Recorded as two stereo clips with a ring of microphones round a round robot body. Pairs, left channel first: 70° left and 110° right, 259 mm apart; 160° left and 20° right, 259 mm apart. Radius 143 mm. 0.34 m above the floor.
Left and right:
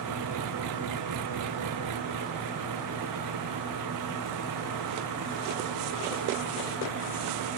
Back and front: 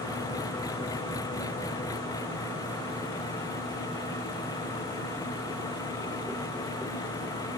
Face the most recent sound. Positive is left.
turn(degrees=-125)